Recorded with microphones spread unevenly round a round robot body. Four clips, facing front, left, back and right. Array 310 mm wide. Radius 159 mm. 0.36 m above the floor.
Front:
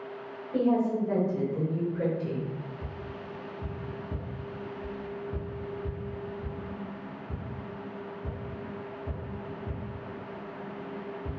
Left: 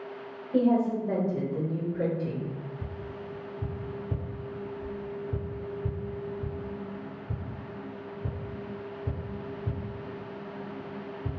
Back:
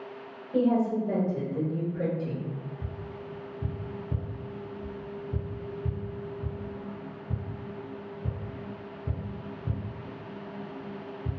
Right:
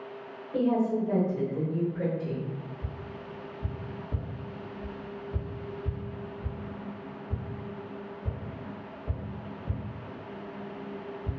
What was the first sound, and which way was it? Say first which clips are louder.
A woman speaking: left 2 dB, back 1 dB; 130° left.